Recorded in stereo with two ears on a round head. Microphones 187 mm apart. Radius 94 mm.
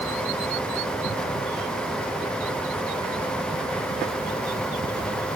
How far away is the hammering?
No hammering in this recording.